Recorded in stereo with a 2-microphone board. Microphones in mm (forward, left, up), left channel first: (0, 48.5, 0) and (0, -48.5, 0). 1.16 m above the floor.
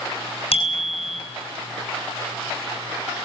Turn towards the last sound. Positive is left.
turn(degrees=75)  # may be behind; listen again after turning